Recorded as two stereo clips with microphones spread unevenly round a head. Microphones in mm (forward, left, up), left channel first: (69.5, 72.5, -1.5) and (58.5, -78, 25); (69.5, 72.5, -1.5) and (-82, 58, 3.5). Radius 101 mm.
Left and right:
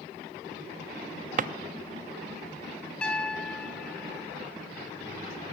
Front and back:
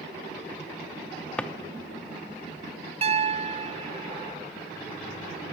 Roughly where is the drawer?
Right.